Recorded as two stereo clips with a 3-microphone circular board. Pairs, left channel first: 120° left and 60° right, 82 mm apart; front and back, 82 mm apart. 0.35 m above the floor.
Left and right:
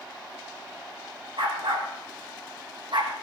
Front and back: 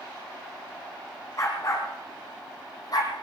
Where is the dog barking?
50° right, 5.5 m; by 3.1 s 40° right, 4 m.